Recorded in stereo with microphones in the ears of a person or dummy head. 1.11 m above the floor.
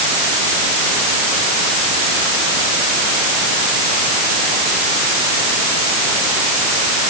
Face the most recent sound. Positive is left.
No sound to turn to.